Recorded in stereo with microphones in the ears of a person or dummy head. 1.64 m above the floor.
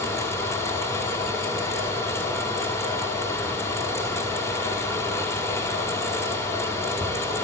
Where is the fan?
15° left (ahead or behind), 1.4 m.